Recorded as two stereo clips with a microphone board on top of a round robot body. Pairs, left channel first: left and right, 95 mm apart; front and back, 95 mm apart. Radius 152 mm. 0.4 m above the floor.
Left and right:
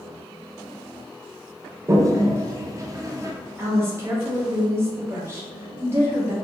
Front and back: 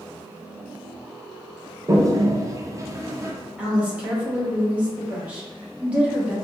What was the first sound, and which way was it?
A toilet flushing, 135° right.